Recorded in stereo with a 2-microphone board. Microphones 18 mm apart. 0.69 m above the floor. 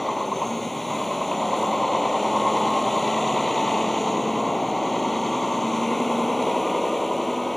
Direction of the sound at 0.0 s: 10° left (ahead or behind).